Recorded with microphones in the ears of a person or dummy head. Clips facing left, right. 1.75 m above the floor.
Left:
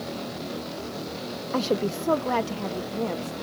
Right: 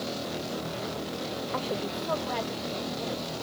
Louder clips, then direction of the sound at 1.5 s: Left 10 dB; 65° left (ahead or behind).